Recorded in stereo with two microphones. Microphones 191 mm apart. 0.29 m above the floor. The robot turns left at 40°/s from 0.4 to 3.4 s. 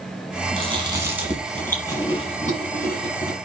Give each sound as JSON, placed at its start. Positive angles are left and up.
{"t": 0.6, "sound": "chewing", "azimuth_deg": -145, "distance_m": 5.5}